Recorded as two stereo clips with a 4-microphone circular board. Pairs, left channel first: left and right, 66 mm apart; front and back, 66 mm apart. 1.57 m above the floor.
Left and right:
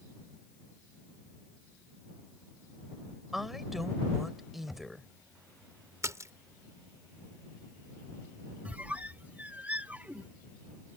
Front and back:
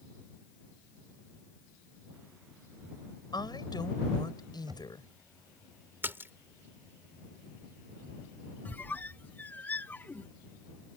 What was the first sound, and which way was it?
A woman speaking, 5° right.